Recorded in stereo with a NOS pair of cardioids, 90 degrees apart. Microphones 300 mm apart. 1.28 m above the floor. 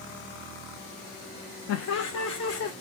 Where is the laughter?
60° left, 1.0 m; by 2.7 s 55° left, 1.6 m.